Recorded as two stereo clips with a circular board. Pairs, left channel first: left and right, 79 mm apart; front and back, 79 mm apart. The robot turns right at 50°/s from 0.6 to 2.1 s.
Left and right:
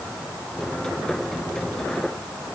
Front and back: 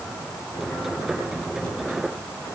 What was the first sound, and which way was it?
Only background noise.